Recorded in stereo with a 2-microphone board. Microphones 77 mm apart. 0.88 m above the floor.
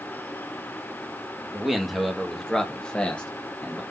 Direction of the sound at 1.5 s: 5° right (ahead or behind).